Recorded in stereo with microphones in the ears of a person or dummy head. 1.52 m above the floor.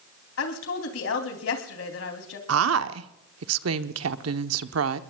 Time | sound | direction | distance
0.4 | a woman speaking | 85° left | 3 m
2.5 | a woman speaking | 85° right | 0.9 m